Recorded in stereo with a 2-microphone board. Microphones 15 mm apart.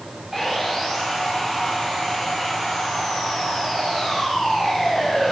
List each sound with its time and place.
0.3 s sawing: centre (ahead or behind), 8 m